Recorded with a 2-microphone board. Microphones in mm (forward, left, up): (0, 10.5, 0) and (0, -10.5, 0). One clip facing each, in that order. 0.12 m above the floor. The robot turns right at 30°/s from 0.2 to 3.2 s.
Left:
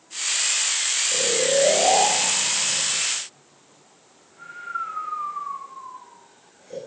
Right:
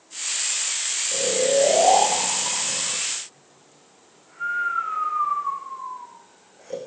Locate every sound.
1.1 s snoring: 5° right (ahead or behind), 6.5 m; by 6.8 s 65° right (ahead or behind), 6.5 m